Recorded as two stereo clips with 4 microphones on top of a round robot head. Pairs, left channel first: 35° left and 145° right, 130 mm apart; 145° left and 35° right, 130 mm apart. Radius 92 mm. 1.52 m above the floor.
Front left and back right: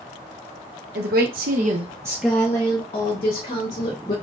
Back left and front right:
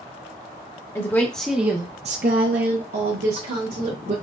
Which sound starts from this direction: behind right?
A woman speaking, at 0.9 s.